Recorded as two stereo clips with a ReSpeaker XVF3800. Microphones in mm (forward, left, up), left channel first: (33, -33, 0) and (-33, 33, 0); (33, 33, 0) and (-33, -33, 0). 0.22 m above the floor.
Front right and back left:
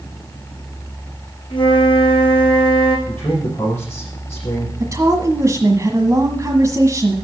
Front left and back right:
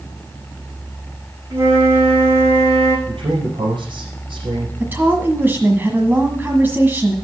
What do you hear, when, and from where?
1.5 s a flute: 75° right, 5 m
3.1 s a man speaking: 110° right, 5.5 m
4.8 s a woman speaking: 165° left, 1.5 m